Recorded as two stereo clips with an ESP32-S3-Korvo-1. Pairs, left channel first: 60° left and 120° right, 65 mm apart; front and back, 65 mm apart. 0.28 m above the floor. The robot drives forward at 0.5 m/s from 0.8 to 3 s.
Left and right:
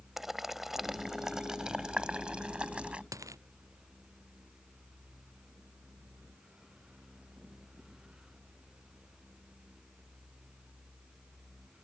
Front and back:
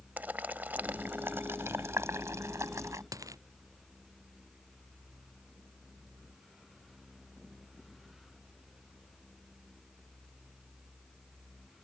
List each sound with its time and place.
0.2 s boiling: 160° left; by 3.0 s 170° left
3.1 s a dropped coin: 150° right